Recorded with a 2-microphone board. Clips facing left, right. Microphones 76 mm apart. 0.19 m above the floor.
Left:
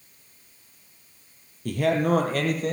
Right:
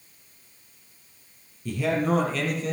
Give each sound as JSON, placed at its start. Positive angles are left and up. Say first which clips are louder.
{"t": 1.6, "sound": "a man speaking", "louder": "left 2 dB", "side_deg": 60, "distance_m": 3.5}